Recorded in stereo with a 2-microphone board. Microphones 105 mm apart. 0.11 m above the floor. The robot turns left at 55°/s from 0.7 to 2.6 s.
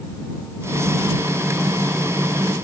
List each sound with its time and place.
Only background noise.